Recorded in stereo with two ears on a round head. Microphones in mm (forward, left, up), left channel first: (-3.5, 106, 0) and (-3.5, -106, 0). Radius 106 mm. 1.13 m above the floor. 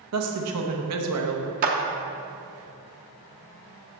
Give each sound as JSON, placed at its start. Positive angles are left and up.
{"t": 0.1, "sound": "a woman speaking", "side_deg": -75, "distance_m": 1.0}
{"t": 1.6, "sound": "a clap", "side_deg": -35, "distance_m": 0.8}